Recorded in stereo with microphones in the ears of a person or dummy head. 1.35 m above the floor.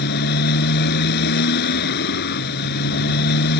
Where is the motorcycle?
65° left (ahead or behind).